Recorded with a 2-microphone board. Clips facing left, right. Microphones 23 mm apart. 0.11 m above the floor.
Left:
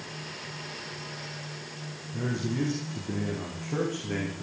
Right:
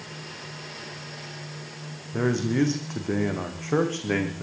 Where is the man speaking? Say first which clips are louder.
Right 7 dB; 65° right (ahead or behind), 6 m; by 4.4 s 55° right (ahead or behind), 6 m.